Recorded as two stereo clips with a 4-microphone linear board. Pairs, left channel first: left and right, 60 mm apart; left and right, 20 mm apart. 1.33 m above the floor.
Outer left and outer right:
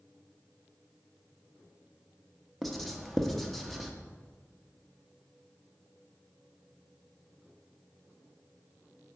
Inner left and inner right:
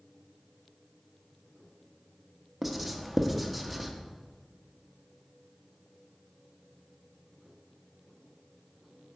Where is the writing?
5° left (ahead or behind), 0.8 m.